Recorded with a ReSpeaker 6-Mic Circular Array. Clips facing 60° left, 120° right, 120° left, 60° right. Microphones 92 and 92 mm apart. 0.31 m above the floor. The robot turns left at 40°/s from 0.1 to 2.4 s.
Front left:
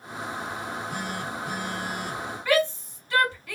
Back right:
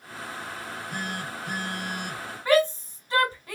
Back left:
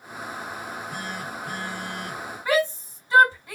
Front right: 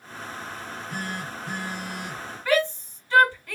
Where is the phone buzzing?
85° right, 2 m; by 2.4 s 155° right, 2 m.